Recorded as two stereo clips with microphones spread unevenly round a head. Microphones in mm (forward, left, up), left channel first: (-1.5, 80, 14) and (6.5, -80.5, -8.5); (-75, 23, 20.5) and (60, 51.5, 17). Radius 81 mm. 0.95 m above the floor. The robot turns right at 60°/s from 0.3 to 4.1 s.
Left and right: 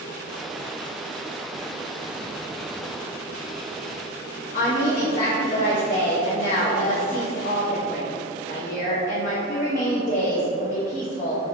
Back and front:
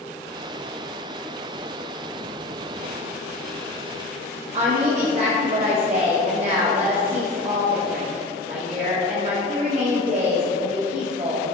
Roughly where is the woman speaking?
Ahead left.